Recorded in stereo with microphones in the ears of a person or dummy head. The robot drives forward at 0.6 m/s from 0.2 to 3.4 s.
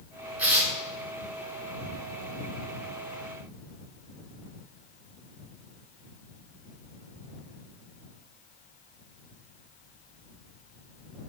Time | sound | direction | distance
0.4 | tearing paper | 15° right (ahead or behind) | 3 m